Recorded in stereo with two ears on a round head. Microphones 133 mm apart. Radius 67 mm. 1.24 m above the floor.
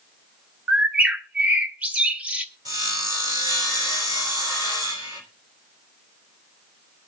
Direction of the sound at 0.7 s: 10° right (ahead or behind).